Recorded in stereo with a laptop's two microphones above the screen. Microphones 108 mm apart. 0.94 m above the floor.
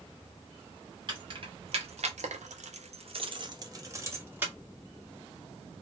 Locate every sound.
1.1 s keys jangling: 40° right (ahead or behind), 0.9 m; by 4.5 s 15° right (ahead or behind), 1.1 m